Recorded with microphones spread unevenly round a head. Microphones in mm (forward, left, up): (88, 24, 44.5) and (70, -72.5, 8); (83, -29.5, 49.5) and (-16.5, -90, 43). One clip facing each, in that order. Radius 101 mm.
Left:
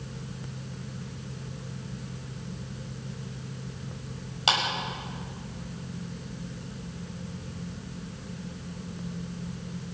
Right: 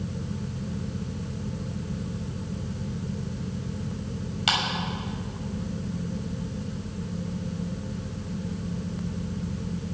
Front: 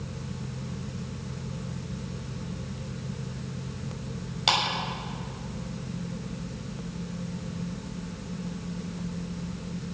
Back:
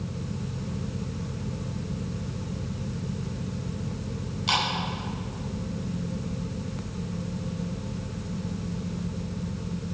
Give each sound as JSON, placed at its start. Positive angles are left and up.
{"t": 4.5, "sound": "a clap", "azimuth_deg": 25, "distance_m": 6.5}